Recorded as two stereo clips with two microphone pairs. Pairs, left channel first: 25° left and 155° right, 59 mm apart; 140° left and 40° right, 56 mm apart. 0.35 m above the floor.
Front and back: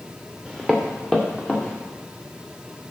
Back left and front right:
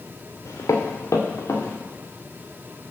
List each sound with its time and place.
0.5 s footsteps: 115° left, 2.0 m; by 1.8 s 95° left, 3 m